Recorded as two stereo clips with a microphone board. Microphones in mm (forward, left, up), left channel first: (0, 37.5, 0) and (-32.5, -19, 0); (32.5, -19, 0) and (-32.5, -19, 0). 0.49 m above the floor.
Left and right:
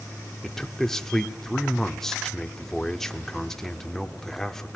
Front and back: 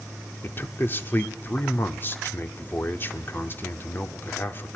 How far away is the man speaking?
About 1.2 m.